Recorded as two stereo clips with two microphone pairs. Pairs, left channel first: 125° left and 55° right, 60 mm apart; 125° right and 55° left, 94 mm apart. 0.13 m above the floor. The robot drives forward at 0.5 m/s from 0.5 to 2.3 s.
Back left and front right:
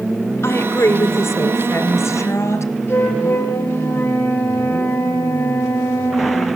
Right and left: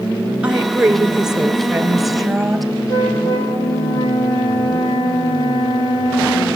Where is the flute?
175° right, 9 m.